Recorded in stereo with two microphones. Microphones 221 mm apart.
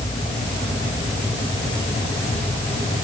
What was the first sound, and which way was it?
Only background noise.